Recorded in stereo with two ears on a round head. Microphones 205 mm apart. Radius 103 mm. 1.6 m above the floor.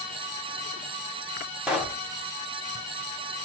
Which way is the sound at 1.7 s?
5° right (ahead or behind).